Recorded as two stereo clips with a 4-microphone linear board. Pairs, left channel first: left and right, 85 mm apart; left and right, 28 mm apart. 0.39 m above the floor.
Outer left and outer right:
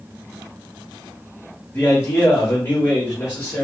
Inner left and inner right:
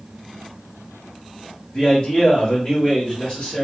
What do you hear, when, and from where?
1.7 s a man speaking: 30° left (ahead or behind), 1.3 m; by 3.6 s 35° left (ahead or behind), 1.4 m